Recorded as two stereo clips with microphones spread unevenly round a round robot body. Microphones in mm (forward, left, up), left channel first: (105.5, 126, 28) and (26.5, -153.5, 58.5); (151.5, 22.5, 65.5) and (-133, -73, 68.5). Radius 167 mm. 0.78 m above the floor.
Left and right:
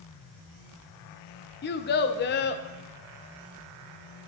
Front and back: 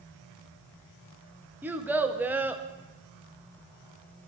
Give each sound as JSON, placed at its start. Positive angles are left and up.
{"t": 1.6, "sound": "a child speaking", "azimuth_deg": 115, "distance_m": 0.6}